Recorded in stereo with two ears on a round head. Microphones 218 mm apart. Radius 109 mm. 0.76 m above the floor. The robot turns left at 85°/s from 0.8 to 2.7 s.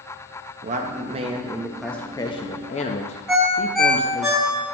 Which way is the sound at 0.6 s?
95° right.